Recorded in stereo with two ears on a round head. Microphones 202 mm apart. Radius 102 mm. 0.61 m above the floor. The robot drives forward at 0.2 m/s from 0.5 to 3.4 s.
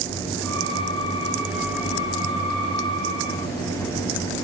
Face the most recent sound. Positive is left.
No sound to turn to.